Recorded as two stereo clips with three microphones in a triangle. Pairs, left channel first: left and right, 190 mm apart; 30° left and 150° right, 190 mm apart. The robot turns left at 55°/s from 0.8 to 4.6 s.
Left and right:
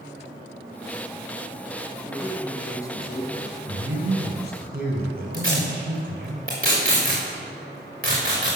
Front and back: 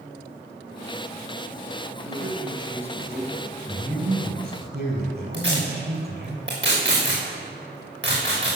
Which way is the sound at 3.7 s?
75° right.